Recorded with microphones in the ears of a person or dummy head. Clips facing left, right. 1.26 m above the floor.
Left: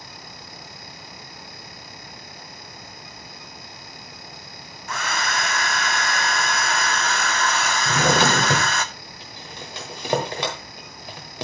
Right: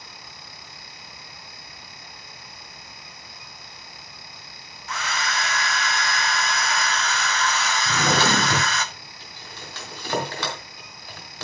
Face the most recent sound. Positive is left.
turn(degrees=20)  # may be behind; listen again after turning